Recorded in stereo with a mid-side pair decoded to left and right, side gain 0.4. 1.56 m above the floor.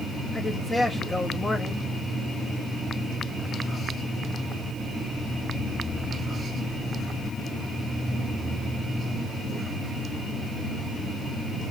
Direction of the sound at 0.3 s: 25° left.